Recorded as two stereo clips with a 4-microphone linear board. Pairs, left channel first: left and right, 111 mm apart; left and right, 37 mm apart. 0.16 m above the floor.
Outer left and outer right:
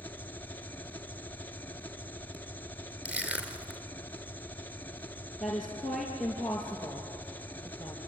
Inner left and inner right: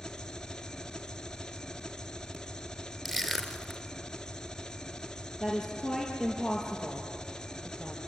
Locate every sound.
0.0 s an engine running: 15° left (ahead or behind), 1.0 m
3.0 s crushing: 10° right (ahead or behind), 2.5 m
5.4 s a woman speaking: centre (ahead or behind), 4 m